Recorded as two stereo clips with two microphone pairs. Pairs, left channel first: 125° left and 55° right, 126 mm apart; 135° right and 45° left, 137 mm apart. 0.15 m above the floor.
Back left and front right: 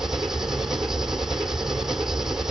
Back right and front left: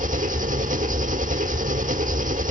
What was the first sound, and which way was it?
An engine running, 35° left.